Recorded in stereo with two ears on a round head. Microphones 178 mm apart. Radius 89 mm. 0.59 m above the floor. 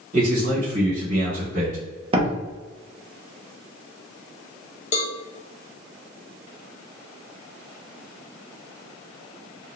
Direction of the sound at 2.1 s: 30° right (ahead or behind).